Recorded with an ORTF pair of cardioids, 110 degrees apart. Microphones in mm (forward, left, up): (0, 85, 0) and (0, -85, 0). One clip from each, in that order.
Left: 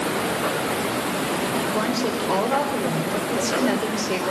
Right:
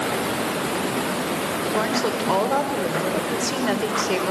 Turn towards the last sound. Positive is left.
turn(degrees=-15)